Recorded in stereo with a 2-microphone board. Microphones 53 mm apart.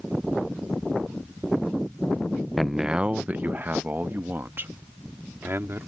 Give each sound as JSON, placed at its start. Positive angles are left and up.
{"t": 2.6, "sound": "a man speaking", "side_deg": 0}